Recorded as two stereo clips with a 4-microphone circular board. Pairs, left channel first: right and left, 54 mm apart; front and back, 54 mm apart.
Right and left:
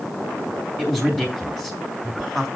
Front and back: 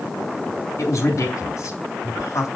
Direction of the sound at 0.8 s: 15° right.